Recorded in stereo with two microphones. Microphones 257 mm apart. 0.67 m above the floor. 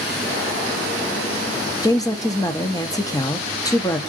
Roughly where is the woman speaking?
Centre.